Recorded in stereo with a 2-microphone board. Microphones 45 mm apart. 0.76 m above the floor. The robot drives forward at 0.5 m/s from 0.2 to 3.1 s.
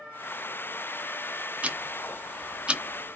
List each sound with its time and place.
1.6 s ticking: 30° right (ahead or behind), 0.5 m; by 3.2 s 20° right (ahead or behind), 0.8 m